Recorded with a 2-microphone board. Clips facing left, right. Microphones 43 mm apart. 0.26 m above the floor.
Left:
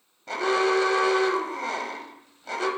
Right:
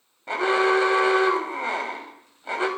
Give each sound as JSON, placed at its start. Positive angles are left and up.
{"t": 0.3, "sound": "an alarm", "side_deg": -25, "distance_m": 1.1}